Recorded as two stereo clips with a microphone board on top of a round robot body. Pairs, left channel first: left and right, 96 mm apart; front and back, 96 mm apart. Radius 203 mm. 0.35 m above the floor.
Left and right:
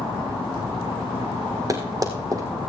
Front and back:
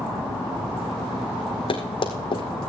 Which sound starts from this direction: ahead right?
Running footsteps, at 1.7 s.